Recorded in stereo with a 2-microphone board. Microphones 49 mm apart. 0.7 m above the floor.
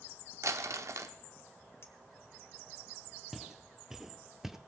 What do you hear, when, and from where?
0.4 s crumpling: 75° right (ahead or behind), 0.7 m
1.8 s a clink: 55° left (ahead or behind), 1.4 m
3.3 s footsteps: 5° right (ahead or behind), 1.1 m